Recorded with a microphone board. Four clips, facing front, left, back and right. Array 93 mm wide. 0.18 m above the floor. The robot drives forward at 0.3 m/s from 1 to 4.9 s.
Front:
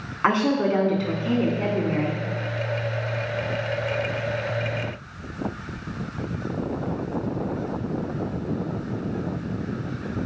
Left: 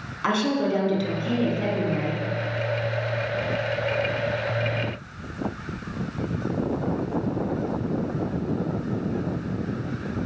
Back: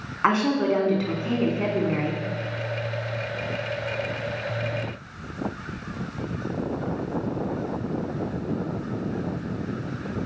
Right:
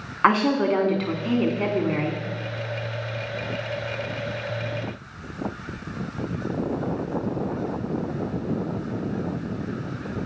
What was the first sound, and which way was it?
A woman speaking, 90° right.